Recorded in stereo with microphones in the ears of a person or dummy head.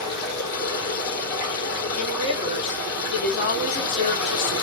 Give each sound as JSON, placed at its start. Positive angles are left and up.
{"t": 0.0, "sound": "running water", "side_deg": 50, "distance_m": 4.5}
{"t": 1.9, "sound": "a woman speaking", "side_deg": 40, "distance_m": 4.0}